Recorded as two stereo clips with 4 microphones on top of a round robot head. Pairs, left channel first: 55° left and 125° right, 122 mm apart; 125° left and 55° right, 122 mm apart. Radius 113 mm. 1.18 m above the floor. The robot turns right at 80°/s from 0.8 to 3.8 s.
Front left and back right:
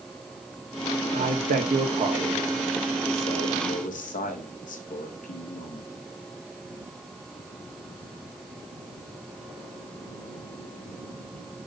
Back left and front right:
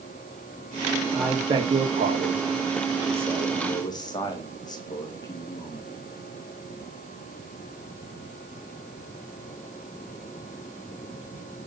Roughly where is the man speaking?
Behind right.